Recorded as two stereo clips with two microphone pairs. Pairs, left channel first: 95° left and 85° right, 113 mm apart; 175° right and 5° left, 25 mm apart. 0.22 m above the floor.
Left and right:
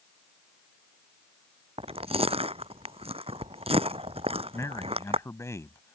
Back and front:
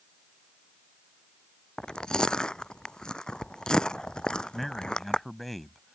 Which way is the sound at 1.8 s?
115° right.